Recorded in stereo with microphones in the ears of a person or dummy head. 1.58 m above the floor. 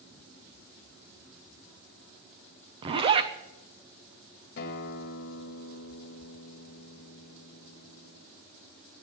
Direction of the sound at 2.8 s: 25° right (ahead or behind).